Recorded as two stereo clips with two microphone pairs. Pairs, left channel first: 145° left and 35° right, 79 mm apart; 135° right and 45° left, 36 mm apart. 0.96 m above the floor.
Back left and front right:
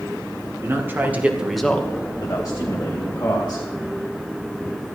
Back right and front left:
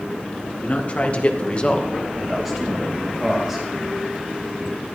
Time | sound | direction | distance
0.6 | a man speaking | 95° right | 2.0 m